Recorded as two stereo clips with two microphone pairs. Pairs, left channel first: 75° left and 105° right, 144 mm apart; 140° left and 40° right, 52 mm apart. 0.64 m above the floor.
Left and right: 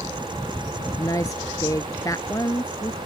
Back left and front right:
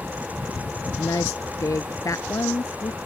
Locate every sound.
1.0 s a woman speaking: 140° left